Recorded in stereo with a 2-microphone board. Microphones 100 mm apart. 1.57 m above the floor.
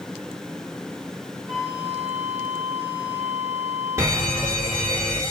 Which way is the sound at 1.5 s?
25° right (ahead or behind).